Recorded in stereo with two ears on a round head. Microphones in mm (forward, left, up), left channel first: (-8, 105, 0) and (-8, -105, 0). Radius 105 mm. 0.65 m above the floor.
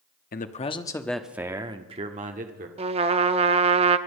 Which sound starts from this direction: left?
A man speaking, at 0.3 s.